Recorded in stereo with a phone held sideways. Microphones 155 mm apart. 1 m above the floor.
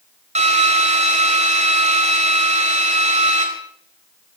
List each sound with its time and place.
0.3 s a drill: 45° right (ahead or behind), 3 m